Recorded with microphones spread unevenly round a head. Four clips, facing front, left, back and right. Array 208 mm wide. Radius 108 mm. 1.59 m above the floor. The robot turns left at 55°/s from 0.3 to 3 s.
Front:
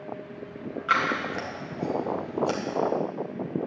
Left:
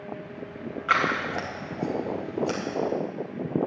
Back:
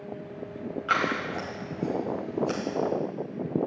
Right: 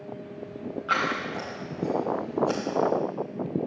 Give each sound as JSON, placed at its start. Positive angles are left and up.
{"t": 0.9, "sound": "scissors", "azimuth_deg": 90, "distance_m": 4.0}